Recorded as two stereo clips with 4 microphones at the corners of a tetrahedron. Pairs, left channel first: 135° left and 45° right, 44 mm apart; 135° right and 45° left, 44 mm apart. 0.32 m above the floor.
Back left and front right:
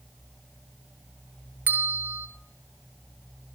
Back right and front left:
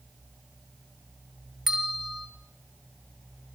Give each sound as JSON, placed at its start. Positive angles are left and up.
{"t": 1.7, "sound": "a bell", "azimuth_deg": -30, "distance_m": 0.9}